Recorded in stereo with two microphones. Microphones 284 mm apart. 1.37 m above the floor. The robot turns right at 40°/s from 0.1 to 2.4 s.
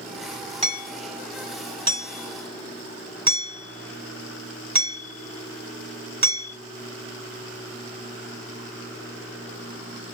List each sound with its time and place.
0.6 s hammering: 20° right (ahead or behind), 3 m; by 6.5 s 85° right, 3 m